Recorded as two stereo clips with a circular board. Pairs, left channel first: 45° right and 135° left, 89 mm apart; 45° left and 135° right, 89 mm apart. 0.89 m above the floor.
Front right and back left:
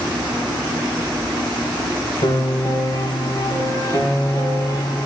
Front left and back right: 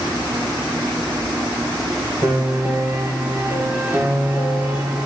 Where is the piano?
70° right, 1.5 m.